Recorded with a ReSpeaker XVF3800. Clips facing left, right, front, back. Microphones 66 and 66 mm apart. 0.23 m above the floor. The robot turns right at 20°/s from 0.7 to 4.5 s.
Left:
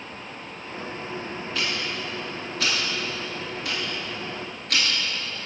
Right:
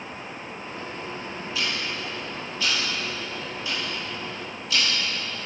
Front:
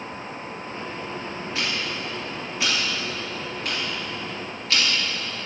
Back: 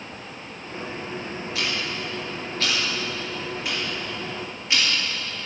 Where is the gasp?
I don't hear a gasp.